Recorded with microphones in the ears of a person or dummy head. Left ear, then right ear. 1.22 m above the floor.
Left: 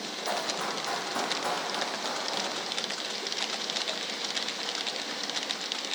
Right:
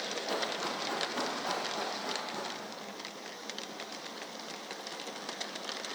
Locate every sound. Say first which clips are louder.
0.3 s running footsteps: left 5 dB; 70° left (ahead or behind), 3 m; by 2.5 s 75° left (ahead or behind), 5 m